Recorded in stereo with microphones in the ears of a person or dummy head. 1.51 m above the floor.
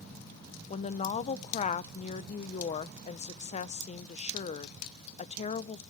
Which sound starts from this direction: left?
A woman speaking, at 0.7 s.